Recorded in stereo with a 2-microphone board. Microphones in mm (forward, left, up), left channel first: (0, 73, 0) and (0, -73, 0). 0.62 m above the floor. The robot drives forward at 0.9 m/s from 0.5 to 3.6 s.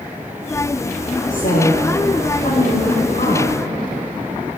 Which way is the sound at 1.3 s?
70° left (ahead or behind).